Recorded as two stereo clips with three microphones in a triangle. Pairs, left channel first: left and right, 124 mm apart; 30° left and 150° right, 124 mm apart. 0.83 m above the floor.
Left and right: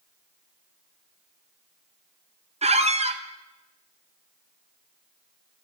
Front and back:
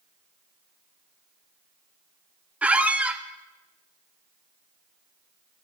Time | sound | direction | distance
2.6 | a squeak | 70° right | 0.5 m